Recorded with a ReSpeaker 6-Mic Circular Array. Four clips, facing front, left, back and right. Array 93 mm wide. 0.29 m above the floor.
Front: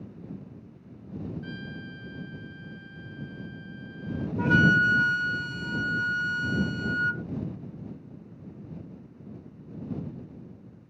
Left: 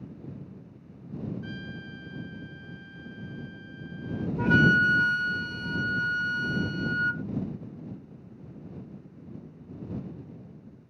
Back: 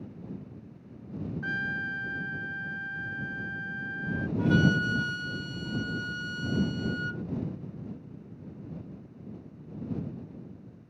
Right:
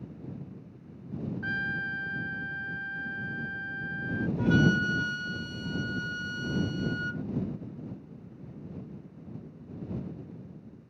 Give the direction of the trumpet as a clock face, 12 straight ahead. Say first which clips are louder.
Right 7 dB, back 6 dB; 4 o'clock.